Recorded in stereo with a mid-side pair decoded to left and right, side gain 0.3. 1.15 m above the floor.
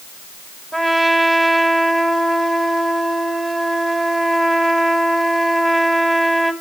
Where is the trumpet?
20° right, 2.0 m.